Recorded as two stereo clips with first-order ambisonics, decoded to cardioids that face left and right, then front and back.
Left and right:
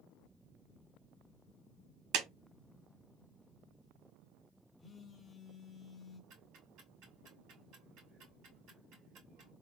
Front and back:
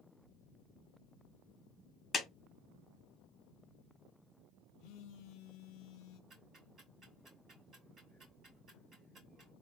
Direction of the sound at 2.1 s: 70° right.